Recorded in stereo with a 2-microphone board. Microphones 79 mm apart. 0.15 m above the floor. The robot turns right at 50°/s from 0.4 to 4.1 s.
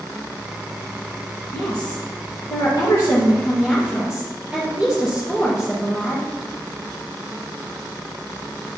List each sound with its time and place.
1.5 s a woman speaking: 65° left, 3 m; by 6.3 s 170° right, 3 m